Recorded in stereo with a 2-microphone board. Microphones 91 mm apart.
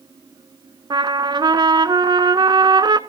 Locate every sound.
0.9 s a trumpet: 55° right (ahead or behind), 0.6 m